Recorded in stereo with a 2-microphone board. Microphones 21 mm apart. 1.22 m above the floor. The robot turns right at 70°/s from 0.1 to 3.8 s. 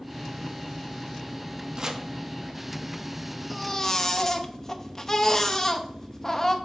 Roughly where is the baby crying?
Centre.